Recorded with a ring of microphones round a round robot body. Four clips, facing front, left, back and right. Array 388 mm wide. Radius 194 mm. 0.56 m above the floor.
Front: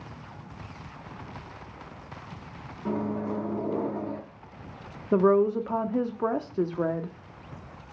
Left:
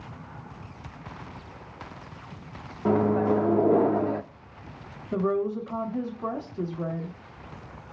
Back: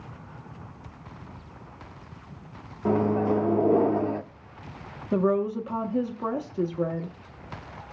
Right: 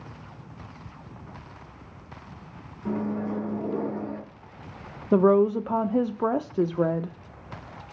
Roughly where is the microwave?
Behind left.